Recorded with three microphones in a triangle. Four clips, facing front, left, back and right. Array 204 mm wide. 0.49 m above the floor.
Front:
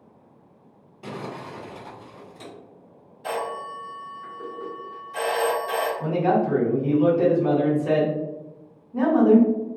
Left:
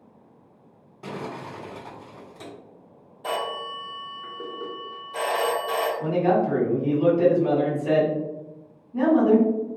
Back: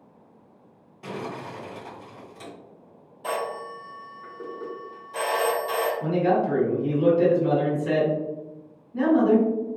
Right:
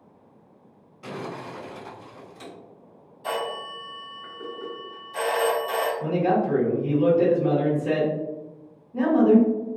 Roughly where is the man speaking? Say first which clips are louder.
Left 2 dB, front 1 dB; ahead.